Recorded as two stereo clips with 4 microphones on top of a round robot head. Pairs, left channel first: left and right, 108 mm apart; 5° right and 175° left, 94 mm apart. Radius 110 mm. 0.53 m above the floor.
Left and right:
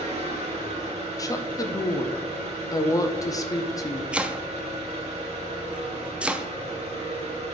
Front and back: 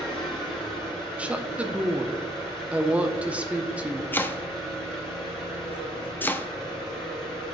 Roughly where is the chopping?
Ahead right.